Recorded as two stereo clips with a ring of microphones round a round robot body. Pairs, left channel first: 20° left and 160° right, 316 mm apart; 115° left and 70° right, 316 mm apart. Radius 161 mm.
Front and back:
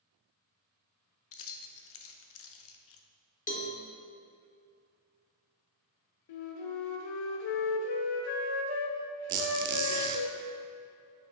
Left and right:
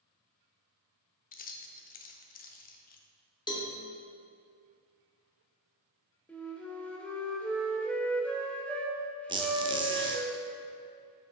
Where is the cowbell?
50° left, 1.0 m.